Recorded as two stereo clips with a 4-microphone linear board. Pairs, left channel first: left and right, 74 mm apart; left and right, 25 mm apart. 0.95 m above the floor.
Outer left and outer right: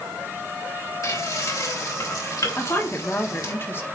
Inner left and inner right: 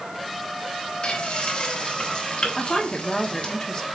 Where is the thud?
I don't hear a thud.